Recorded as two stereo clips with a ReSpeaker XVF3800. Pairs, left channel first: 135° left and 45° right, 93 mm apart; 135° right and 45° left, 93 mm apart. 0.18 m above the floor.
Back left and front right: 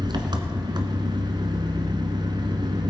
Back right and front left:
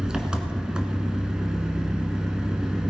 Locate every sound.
0.0 s an engine running: 35° right, 1.4 m